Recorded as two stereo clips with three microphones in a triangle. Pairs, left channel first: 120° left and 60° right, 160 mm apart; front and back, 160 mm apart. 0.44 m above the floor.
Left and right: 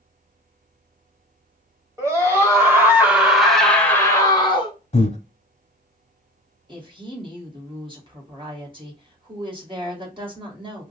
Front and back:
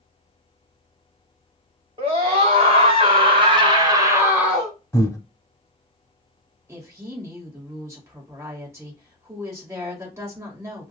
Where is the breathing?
70° left, 0.8 m.